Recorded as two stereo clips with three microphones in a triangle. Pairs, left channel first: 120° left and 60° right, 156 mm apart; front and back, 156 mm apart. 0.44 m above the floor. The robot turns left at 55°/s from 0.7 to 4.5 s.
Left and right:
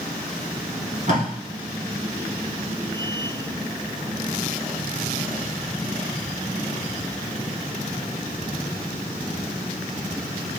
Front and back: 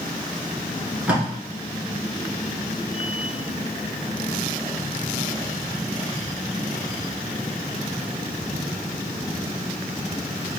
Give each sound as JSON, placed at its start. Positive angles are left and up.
{"t": 1.1, "sound": "tape being pulled", "azimuth_deg": -95, "distance_m": 1.9}